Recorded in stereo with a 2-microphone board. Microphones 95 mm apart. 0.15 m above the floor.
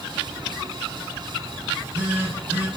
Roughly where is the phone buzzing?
Right.